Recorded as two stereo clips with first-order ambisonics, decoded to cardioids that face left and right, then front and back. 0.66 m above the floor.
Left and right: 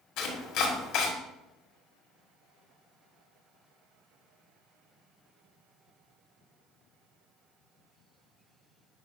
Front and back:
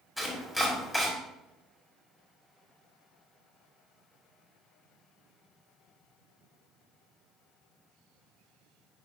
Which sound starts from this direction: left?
Chopping, at 0.2 s.